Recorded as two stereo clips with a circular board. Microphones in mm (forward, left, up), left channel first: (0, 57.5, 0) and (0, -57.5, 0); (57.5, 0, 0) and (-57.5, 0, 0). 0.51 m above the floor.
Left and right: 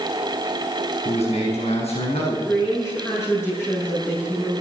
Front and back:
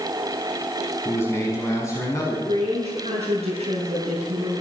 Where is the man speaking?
70° left, 5.5 m; by 2.4 s 60° left, 7.5 m.